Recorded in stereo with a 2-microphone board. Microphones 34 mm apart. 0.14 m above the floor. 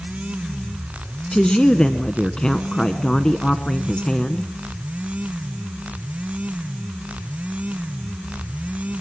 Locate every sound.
1.3 s a woman speaking: 20° left (ahead or behind), 1.2 m